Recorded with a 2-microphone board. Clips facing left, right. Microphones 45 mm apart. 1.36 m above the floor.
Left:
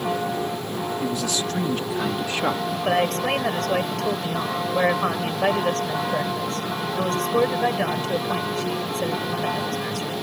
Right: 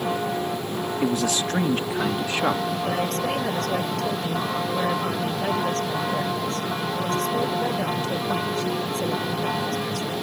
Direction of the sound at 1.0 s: 60° right (ahead or behind).